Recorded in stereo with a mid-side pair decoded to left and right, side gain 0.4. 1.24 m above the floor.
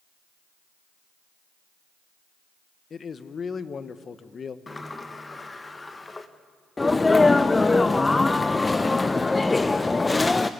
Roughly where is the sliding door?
Ahead left.